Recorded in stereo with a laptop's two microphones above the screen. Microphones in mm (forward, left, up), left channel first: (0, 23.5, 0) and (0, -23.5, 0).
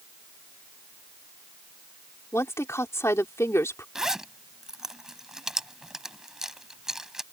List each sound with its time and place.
2.3 s a woman speaking: 70° left (ahead or behind)
4.0 s a zipper: 10° right (ahead or behind)